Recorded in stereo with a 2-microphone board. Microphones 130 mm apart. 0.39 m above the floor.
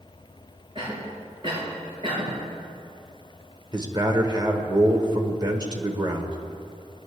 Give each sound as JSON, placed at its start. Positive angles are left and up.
{"t": 0.8, "sound": "a cough", "side_deg": -40, "distance_m": 5.0}
{"t": 3.7, "sound": "a man speaking", "side_deg": -30, "distance_m": 1.2}